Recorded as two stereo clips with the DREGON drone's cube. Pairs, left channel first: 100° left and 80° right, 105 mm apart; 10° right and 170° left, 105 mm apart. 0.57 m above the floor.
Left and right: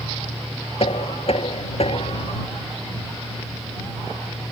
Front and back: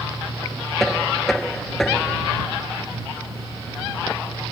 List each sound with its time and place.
0.8 s knocking: 75° left